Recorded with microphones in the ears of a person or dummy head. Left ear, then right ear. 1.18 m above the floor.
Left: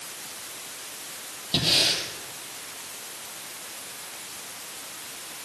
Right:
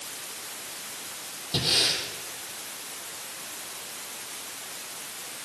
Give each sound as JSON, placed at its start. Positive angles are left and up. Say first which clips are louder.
{"t": 1.5, "sound": "breathing", "louder": "left 2 dB", "side_deg": 30, "distance_m": 5.5}